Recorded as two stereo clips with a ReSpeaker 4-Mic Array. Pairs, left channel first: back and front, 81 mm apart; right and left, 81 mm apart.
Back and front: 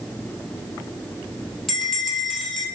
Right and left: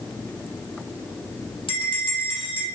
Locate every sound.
1.7 s a bell: 95° right, 3.5 m